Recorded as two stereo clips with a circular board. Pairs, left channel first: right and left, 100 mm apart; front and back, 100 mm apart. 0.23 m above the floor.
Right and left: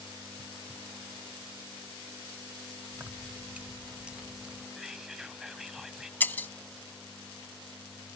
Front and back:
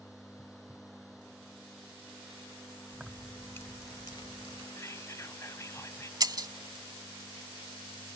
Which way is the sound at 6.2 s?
155° right.